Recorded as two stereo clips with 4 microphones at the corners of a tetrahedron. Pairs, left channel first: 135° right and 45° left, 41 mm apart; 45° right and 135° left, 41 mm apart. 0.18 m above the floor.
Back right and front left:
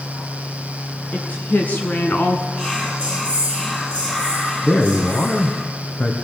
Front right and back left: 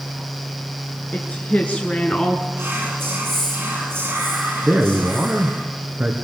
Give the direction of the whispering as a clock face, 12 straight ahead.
6 o'clock.